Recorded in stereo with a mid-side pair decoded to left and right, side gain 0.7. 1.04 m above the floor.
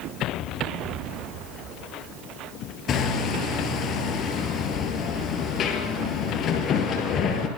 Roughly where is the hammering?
Ahead left.